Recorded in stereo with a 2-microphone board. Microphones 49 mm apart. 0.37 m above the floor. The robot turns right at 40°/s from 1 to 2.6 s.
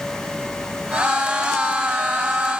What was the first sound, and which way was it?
Only background noise.